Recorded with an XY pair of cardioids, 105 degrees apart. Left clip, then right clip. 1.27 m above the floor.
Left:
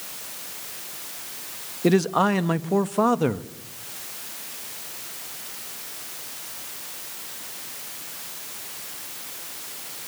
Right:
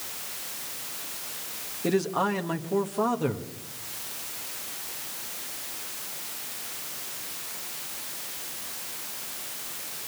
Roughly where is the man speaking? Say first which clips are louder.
Left 6 dB; ahead left.